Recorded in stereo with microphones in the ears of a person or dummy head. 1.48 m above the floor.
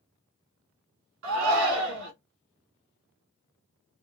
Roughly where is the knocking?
I don't hear knocking.